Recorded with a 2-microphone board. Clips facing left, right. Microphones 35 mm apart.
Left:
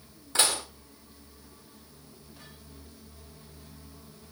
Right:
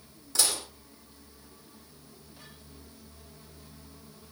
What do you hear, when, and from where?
0.3 s dishes clattering: 40° left (ahead or behind), 3.5 m